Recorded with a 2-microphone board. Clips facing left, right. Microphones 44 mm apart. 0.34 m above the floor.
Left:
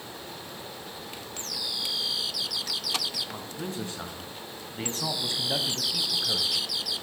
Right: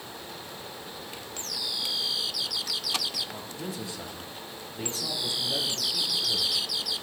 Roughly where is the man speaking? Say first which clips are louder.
Left 1 dB; left.